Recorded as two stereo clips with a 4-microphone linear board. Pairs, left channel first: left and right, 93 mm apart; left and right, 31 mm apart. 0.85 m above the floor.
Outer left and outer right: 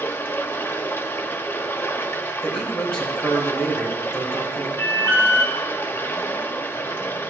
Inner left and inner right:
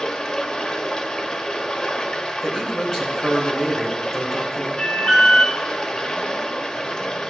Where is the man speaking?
10° left (ahead or behind), 4 m.